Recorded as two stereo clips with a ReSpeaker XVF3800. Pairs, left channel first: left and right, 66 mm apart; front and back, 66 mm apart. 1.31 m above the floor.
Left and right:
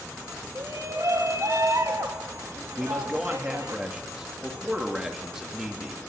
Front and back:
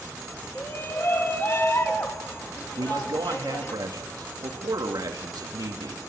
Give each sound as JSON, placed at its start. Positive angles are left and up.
{"t": 0.6, "sound": "a shout", "azimuth_deg": -50, "distance_m": 2.5}
{"t": 2.8, "sound": "a man speaking", "azimuth_deg": -170, "distance_m": 2.0}